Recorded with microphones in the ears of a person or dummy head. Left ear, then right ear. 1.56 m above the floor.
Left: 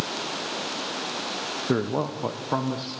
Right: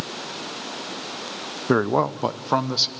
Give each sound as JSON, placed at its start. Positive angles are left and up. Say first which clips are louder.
{"t": 1.7, "sound": "a man speaking", "louder": "right 8 dB", "side_deg": -35, "distance_m": 0.6}